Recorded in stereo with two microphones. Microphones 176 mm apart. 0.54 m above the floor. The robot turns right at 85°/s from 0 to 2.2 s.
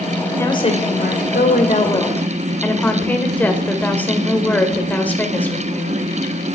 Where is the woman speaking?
15° left, 1.9 m; by 6.5 s 170° left, 1.9 m.